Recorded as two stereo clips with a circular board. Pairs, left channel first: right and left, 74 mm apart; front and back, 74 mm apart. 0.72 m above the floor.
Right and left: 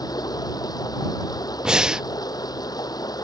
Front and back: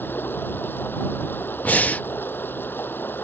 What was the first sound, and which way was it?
Running water, 60° right.